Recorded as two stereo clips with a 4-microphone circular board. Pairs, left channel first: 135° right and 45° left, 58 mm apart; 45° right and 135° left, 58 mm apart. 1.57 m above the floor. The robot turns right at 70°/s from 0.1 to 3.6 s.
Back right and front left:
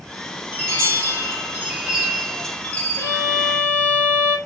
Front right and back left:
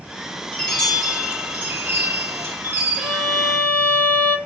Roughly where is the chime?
Ahead.